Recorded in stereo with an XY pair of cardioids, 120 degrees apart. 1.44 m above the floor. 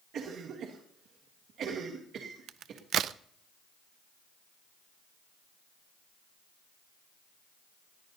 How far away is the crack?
About 0.5 m.